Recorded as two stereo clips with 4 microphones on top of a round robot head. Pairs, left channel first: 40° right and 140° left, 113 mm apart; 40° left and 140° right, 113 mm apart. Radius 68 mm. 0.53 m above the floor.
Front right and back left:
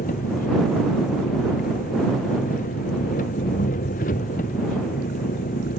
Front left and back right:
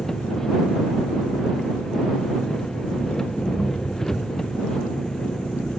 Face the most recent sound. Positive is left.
turn(degrees=-50)